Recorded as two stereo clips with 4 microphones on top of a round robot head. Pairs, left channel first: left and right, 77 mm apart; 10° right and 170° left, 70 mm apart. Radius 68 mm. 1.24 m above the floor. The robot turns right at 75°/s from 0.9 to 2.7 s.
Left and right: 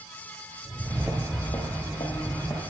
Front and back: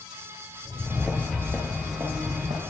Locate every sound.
0.7 s footsteps: 130° right, 1.4 m; by 2.6 s 160° left, 2.5 m